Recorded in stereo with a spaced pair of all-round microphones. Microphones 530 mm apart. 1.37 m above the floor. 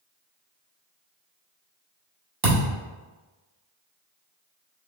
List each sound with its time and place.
2.4 s a thud: 45° right (ahead or behind), 1.2 m